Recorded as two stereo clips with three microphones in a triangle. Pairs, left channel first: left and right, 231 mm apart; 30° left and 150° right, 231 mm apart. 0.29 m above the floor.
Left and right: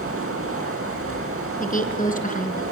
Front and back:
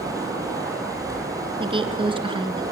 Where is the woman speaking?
145° left, 3 m.